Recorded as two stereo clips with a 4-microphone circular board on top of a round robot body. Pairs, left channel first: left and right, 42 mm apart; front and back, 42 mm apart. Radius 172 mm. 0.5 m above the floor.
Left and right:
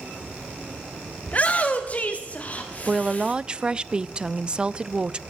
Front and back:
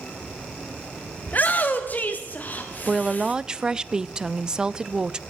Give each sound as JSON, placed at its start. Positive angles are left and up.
{"t": 1.3, "sound": "a shout", "azimuth_deg": 40, "distance_m": 1.4}
{"t": 2.9, "sound": "a woman speaking", "azimuth_deg": -130, "distance_m": 0.7}